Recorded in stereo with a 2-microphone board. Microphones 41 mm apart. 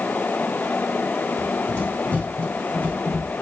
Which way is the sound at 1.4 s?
30° left (ahead or behind).